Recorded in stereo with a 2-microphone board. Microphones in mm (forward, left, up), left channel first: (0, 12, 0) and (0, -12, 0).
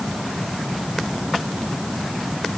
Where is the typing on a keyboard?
No typing on a keyboard in this recording.